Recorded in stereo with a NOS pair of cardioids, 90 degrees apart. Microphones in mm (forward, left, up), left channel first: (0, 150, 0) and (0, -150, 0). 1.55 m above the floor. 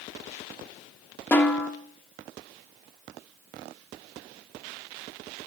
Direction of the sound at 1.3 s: 5° left.